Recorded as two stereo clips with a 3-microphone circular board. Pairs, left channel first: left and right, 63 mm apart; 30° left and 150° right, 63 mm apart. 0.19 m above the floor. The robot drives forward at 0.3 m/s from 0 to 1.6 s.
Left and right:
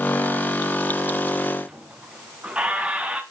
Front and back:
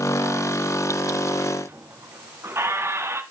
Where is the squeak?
155° right, 1.2 m.